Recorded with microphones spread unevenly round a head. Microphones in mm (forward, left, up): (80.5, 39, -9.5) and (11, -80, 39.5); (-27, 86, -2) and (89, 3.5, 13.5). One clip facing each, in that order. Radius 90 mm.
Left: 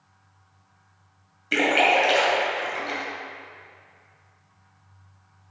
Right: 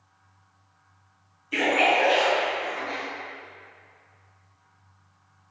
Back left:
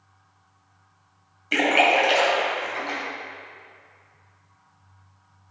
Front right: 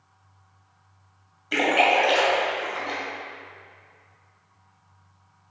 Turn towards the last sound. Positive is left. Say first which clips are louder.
# left 2 dB, back left 1 dB
turn(degrees=60)